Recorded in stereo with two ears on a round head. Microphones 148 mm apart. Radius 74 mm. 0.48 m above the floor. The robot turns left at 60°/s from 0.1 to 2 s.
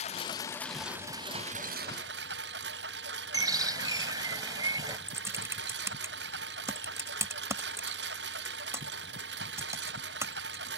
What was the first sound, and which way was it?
A lawn mower, 40° left.